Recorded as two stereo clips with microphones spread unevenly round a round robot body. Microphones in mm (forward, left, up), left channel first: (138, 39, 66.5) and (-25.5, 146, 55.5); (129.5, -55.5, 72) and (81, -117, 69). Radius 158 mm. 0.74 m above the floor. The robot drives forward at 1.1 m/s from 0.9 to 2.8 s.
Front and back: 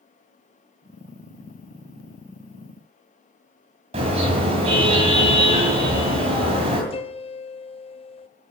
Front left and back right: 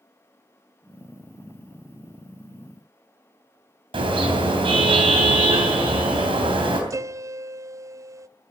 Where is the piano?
90° right, 0.5 m.